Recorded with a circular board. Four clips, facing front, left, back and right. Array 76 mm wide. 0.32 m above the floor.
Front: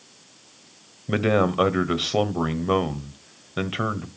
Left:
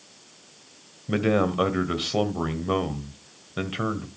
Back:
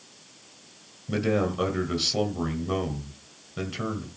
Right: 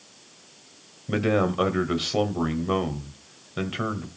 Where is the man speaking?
Straight ahead, 1.5 m.